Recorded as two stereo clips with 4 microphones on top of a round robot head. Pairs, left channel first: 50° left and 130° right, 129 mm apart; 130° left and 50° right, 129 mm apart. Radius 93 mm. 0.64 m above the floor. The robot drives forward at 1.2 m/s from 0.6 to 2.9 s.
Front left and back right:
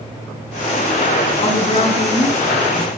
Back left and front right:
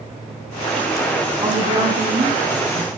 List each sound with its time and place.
1.4 s a woman speaking: straight ahead, 8.5 m